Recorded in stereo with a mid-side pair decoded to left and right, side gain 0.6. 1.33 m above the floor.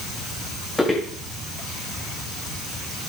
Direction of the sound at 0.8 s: 5° left.